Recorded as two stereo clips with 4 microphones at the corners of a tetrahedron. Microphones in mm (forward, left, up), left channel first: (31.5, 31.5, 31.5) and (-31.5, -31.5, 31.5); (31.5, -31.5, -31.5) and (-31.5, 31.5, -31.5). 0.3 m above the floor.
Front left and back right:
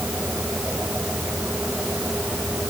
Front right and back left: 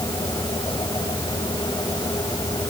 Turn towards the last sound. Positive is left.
No sound to turn to.